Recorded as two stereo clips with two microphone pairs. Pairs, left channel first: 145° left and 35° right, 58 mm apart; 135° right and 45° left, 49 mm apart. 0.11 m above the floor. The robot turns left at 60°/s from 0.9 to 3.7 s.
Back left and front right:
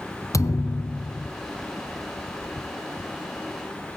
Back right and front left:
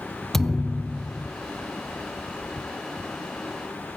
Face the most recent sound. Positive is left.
turn(degrees=-25)